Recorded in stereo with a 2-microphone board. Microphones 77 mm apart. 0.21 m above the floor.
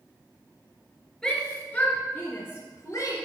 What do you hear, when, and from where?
1.2 s a shout: 10° left (ahead or behind), 3 m; by 3.2 s 45° left (ahead or behind), 3 m